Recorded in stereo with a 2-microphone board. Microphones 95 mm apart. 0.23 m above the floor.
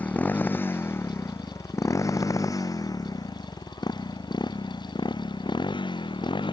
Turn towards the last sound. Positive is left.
turn(degrees=60)  # may be behind; listen again after turning